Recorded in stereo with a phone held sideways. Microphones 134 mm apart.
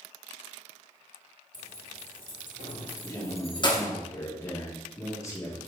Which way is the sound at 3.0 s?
20° left (ahead or behind).